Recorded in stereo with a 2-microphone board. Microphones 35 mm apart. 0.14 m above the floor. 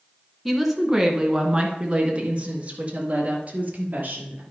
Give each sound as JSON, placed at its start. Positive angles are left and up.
{"t": 0.5, "sound": "a woman speaking", "side_deg": -5, "distance_m": 1.2}